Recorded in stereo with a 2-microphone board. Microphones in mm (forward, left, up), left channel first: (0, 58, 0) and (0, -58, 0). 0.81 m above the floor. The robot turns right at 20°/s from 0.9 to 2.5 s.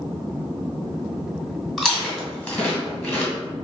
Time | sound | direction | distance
1.8 | chewing | centre (ahead or behind) | 1.6 m